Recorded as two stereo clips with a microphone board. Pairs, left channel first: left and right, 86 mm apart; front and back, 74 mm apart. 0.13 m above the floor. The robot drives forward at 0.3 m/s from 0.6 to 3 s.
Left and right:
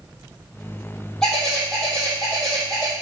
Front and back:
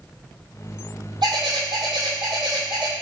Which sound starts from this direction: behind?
A bird, at 1.2 s.